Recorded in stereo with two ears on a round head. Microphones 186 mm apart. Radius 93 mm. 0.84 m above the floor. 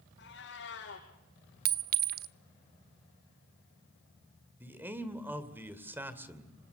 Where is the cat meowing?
60° left (ahead or behind), 6.5 m.